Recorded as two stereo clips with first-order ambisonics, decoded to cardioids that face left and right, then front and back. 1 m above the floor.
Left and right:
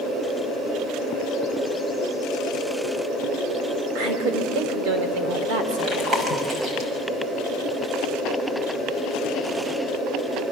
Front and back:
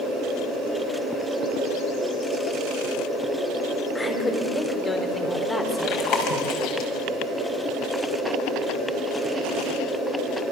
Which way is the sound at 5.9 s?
30° right.